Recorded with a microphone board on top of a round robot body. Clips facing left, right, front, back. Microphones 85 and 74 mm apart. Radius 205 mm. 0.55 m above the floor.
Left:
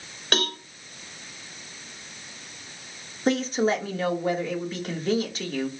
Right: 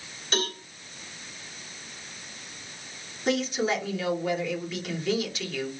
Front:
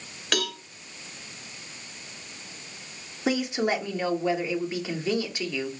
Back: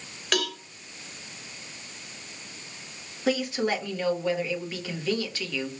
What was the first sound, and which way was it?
A cowbell, 90° left.